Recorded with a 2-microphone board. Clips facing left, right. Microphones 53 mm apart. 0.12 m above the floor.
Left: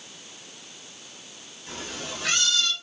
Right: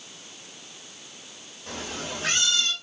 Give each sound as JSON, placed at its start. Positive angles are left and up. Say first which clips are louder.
{"t": 1.7, "sound": "a cat meowing", "louder": "right 2 dB", "side_deg": -65, "distance_m": 1.3}